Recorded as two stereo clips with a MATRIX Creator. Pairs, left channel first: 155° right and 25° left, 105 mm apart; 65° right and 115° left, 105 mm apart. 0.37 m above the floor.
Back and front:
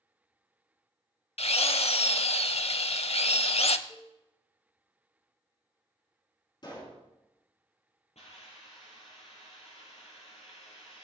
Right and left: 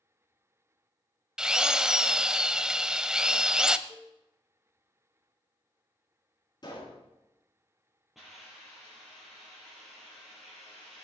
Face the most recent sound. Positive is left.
turn(degrees=-160)